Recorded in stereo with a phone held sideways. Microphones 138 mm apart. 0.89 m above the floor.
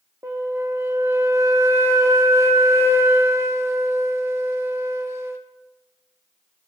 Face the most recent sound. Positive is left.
turn(degrees=-20)  # may be behind; listen again after turning